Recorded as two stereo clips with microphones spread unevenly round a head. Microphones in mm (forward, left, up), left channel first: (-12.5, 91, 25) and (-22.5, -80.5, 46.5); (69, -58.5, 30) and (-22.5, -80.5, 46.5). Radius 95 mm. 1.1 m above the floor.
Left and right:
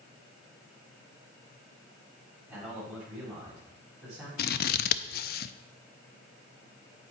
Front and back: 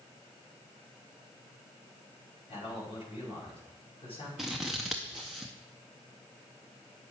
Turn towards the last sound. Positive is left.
turn(degrees=115)